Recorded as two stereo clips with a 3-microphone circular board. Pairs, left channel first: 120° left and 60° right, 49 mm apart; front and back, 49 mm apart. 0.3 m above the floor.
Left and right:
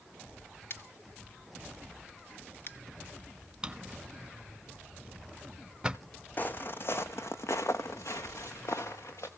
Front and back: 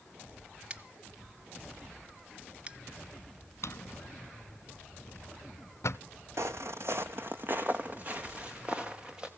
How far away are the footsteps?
About 0.8 m.